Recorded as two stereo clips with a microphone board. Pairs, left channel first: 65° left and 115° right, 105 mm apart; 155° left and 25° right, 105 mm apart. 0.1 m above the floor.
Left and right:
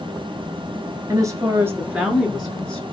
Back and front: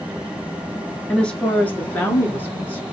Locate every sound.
1.1 s a woman speaking: 130° right, 1.2 m; by 2.8 s 135° left, 1.1 m